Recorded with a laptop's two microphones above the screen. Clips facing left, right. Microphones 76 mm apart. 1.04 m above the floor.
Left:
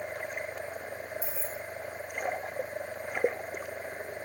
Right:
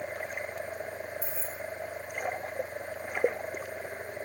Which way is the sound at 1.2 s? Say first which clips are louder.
Left 1 dB; 5° left (ahead or behind).